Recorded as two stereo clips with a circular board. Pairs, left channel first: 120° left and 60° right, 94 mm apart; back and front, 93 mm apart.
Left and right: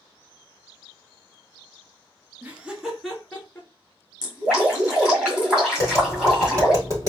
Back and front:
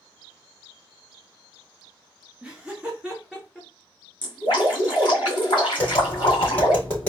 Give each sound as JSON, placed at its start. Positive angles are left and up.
{"t": 2.4, "sound": "laughter", "azimuth_deg": -60, "distance_m": 1.1}
{"t": 4.2, "sound": "dripping", "azimuth_deg": -145, "distance_m": 2.5}
{"t": 5.8, "sound": "tapping", "azimuth_deg": -115, "distance_m": 3.0}